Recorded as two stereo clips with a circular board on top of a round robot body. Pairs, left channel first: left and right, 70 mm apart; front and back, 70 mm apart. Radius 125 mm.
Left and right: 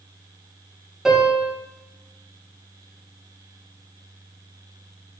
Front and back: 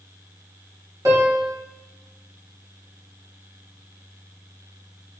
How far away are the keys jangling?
I don't hear keys jangling.